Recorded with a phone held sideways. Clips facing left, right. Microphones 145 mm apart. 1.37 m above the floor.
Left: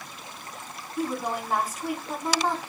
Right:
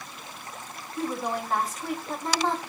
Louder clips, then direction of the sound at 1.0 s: Left 1 dB; 5° left (ahead or behind).